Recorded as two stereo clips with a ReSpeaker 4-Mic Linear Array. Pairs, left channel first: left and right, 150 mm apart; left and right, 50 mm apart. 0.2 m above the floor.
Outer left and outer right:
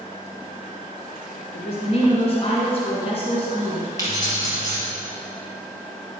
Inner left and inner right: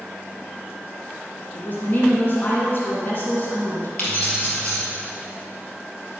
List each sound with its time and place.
1.5 s a woman speaking: 40° left (ahead or behind), 2.5 m
4.0 s keys jangling: 25° left (ahead or behind), 3 m